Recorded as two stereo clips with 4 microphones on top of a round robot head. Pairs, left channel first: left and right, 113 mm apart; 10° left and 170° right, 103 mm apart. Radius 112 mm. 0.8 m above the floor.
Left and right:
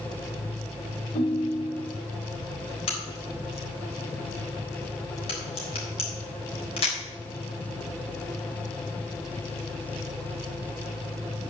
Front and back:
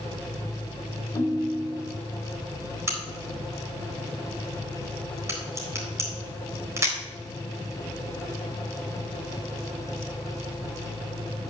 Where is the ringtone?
70° left, 1.3 m.